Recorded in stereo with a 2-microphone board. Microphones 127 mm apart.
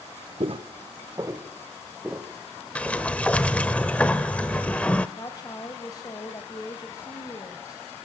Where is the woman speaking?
35° left (ahead or behind), 1.9 m.